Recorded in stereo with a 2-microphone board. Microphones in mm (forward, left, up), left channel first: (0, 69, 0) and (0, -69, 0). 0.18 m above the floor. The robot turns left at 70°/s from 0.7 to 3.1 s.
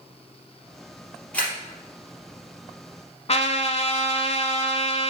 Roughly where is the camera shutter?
Centre.